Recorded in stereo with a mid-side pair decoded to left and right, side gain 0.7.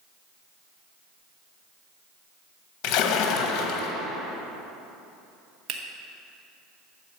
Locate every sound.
2.8 s a splash: 55° left, 1.2 m
5.7 s a finger snap: 55° right, 1.2 m